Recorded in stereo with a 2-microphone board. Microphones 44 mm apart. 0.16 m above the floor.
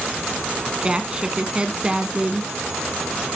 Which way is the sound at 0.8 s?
20° right (ahead or behind).